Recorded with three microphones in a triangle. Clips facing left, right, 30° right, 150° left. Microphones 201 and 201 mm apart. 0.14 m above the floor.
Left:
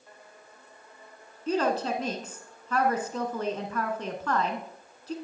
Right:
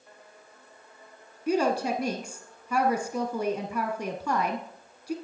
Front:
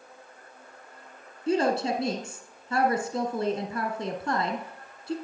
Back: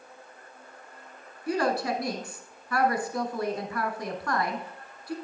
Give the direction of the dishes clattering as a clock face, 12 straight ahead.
I don't hear dishes clattering.